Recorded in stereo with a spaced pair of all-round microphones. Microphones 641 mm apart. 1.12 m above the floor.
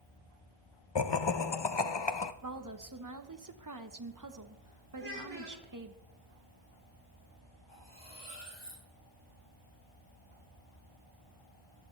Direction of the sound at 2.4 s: 30° right (ahead or behind).